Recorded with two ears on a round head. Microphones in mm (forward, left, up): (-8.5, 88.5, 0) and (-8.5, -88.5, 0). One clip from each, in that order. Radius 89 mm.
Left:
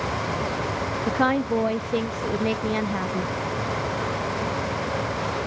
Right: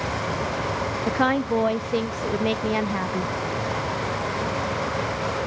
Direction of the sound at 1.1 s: 15° right (ahead or behind).